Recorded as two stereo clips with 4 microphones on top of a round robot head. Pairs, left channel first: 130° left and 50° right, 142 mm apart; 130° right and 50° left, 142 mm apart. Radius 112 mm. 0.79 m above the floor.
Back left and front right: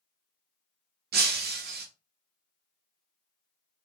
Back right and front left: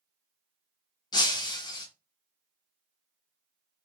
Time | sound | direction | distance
1.1 | breaking glass | 65° right | 0.7 m